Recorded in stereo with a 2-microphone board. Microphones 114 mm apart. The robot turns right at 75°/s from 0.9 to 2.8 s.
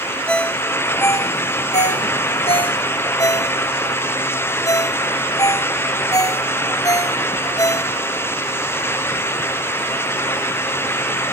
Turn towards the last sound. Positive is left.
turn(degrees=30)  # may be behind; listen again after turning